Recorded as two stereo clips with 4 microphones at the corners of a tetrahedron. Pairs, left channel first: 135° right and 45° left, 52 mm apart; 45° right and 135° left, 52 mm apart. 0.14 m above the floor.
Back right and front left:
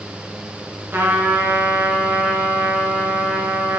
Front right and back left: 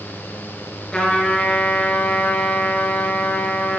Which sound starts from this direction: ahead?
A trumpet, at 0.9 s.